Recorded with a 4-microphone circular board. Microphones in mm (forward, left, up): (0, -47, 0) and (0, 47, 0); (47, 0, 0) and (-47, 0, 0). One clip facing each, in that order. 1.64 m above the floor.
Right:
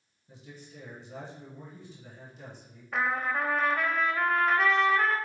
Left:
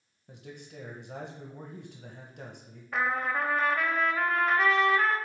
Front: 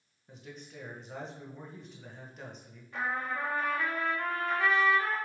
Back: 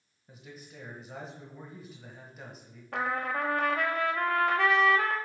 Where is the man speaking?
95° left, 1.3 m.